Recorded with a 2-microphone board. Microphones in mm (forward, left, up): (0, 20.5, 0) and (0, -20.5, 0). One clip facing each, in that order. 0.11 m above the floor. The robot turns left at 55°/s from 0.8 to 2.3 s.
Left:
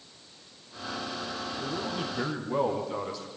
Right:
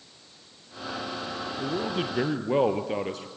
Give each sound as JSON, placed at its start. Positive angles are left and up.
{"t": 1.6, "sound": "a man speaking", "azimuth_deg": -40, "distance_m": 2.0}